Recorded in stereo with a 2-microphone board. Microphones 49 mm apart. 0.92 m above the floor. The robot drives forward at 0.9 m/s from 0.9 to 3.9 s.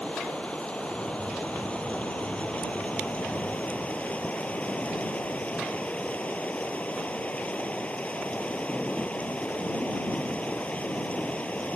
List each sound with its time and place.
0.0 s running water: 25° left (ahead or behind); by 11.8 s 30° left (ahead or behind)